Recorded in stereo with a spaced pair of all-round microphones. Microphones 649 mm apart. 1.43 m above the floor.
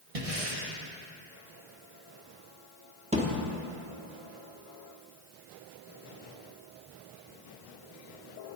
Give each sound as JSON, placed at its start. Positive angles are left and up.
{"t": 0.1, "sound": "breathing", "side_deg": -60, "distance_m": 1.2}
{"t": 3.1, "sound": "a thud", "side_deg": -10, "distance_m": 1.1}